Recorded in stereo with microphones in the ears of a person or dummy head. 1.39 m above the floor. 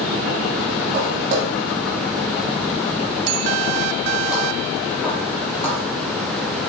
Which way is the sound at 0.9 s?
40° right (ahead or behind).